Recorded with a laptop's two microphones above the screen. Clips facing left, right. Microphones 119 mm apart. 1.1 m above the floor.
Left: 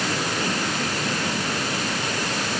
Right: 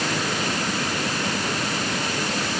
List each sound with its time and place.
Only background noise.